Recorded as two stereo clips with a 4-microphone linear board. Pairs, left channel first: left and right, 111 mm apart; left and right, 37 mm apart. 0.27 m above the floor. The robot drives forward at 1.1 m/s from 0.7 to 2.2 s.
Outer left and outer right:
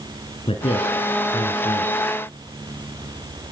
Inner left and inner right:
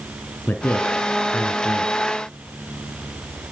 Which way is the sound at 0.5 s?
55° left (ahead or behind).